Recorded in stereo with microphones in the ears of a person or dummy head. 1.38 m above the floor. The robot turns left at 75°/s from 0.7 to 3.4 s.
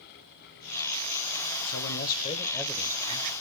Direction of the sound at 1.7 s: 80° left.